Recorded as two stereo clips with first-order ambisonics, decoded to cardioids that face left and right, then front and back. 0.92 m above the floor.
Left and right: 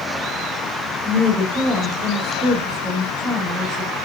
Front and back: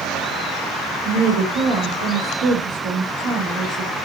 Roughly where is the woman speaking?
Behind.